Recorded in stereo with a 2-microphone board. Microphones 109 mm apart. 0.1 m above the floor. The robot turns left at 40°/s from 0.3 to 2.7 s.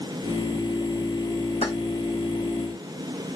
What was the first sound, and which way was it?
Keys jangling, 70° left (ahead or behind).